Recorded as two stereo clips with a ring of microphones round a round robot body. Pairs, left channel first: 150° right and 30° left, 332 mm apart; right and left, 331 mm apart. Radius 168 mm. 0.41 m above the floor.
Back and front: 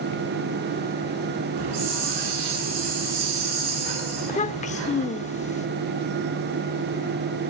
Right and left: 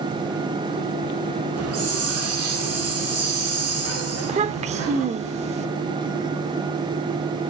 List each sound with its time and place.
1.6 s a hiss: 40° left, 7 m
4.2 s a child speaking: 150° left, 0.6 m